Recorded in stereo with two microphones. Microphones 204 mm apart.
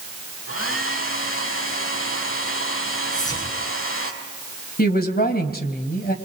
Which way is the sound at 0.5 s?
75° left (ahead or behind).